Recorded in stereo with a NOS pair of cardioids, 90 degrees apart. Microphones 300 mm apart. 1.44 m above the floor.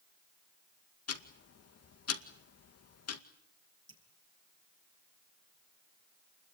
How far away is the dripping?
About 6.5 m.